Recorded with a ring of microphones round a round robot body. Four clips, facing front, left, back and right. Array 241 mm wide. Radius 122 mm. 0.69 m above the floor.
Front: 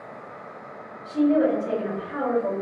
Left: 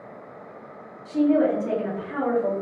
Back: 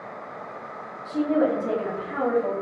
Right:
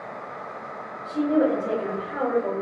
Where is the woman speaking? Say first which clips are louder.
Left 2 dB, front 2 dB; 140° left, 1.2 m.